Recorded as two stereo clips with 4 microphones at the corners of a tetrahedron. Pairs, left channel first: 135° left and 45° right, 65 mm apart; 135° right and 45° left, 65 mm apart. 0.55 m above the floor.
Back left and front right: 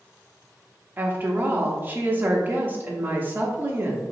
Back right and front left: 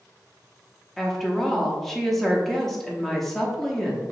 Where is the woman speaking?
55° right, 0.8 m.